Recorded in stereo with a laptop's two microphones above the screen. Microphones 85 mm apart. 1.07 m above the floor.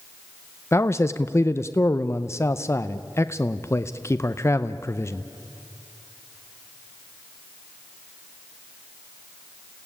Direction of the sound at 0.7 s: 30° left (ahead or behind).